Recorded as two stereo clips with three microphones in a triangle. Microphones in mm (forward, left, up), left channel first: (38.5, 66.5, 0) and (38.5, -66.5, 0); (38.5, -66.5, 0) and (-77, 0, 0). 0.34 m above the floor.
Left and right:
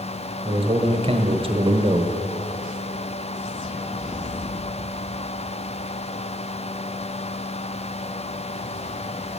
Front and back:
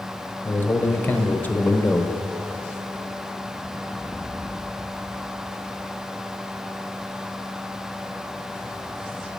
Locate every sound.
0.5 s a man speaking: 100° right, 1.1 m